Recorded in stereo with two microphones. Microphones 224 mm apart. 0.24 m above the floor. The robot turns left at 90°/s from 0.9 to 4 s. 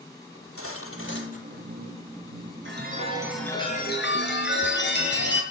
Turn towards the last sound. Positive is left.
turn(degrees=120)